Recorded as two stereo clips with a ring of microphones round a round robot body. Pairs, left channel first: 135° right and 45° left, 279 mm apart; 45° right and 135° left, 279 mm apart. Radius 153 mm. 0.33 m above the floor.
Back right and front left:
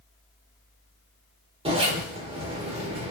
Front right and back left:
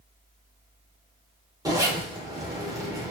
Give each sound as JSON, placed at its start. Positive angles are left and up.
{"t": 1.6, "sound": "a zipper", "azimuth_deg": 75, "distance_m": 0.8}